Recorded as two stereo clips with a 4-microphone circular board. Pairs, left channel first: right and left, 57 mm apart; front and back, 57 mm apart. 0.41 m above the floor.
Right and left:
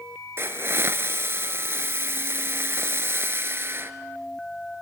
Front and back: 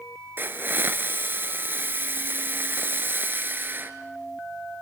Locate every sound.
0.4 s a hiss: 130° left, 1.1 m